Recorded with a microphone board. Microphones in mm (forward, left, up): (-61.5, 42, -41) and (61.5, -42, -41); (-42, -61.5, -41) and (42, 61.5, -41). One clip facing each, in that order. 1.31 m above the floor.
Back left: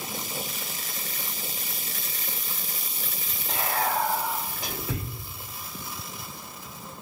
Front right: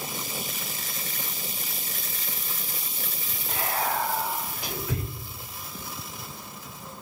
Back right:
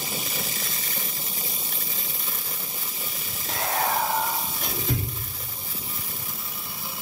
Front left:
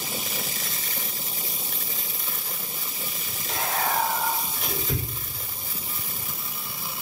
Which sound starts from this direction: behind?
Whispering, at 3.5 s.